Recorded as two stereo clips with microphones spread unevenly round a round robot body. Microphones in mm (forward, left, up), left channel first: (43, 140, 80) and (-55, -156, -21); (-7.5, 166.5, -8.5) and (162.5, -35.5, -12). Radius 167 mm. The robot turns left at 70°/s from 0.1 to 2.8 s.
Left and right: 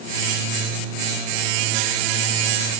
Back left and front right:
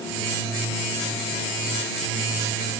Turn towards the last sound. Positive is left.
No sound to turn to.